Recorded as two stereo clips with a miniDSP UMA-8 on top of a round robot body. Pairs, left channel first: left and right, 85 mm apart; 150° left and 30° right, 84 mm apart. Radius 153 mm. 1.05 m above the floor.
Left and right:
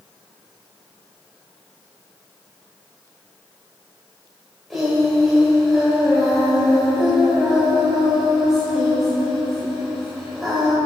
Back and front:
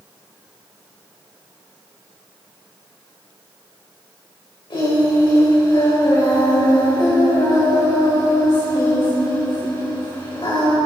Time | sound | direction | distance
4.7 | singing | straight behind | 6 m